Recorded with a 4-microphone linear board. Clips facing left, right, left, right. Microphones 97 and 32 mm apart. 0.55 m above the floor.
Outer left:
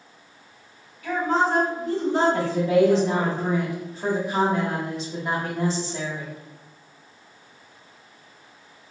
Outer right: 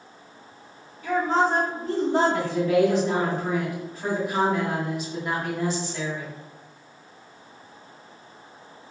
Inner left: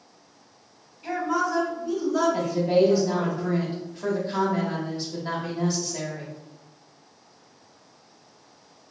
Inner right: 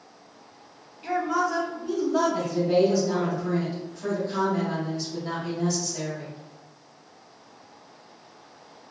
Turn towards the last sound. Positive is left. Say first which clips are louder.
# outer left 2 dB, inner left 1 dB
turn(degrees=30)  # may be behind; listen again after turning